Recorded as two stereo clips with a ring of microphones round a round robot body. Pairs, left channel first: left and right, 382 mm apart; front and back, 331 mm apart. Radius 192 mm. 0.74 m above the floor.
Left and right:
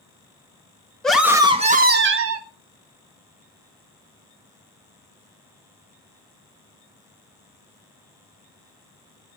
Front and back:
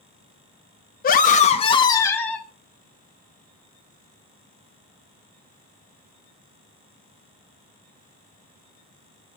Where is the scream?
5° left, 1.1 m; by 2.5 s 85° right, 1.2 m.